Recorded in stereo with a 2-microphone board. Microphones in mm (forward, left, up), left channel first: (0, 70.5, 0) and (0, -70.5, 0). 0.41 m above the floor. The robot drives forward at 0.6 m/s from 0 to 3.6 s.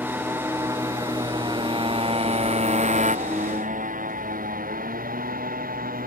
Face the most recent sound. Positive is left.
turn(degrees=-90)